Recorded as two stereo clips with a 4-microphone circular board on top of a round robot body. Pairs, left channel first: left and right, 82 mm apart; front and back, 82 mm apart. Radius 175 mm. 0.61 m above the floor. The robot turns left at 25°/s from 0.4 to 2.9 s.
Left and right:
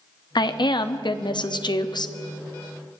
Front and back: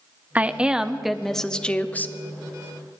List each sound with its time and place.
0.3 s a woman speaking: 110° left, 1.0 m; by 2.1 s 65° left, 1.0 m